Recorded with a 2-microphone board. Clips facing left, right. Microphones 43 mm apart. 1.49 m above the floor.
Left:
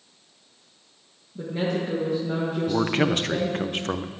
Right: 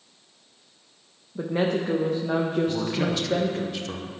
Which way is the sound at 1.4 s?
40° right (ahead or behind).